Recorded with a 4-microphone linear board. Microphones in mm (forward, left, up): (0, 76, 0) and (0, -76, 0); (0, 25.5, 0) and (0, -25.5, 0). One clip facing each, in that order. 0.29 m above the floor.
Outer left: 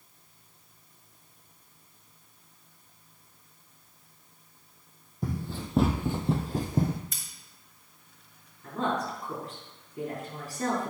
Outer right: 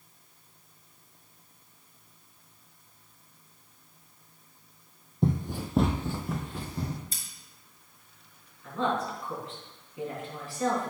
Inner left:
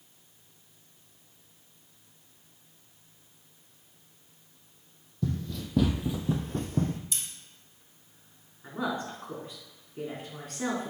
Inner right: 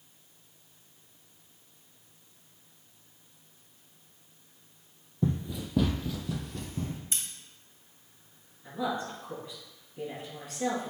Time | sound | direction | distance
5.2 | running footsteps | 25° right (ahead or behind) | 0.8 m
7.1 | scissors | 35° right (ahead or behind) | 1.5 m
8.6 | a woman speaking | 40° left (ahead or behind) | 3 m